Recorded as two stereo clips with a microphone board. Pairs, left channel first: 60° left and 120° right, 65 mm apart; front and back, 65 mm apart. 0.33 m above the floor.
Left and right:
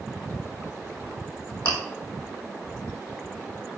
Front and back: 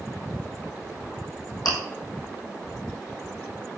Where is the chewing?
10° right, 3 m.